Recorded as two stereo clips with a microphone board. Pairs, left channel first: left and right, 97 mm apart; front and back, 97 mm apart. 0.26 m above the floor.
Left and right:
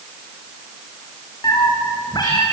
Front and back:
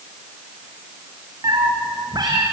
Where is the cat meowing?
135° left, 4.5 m.